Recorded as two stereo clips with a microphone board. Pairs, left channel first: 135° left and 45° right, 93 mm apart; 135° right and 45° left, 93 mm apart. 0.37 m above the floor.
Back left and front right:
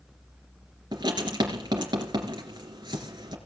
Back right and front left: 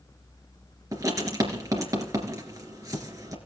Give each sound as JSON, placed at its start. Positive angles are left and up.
{"t": 0.9, "sound": "writing", "azimuth_deg": -10, "distance_m": 3.0}